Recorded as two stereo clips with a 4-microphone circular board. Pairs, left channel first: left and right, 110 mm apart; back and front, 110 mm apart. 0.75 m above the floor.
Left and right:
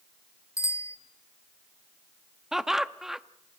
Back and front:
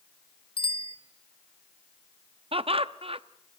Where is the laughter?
5° right, 0.8 m.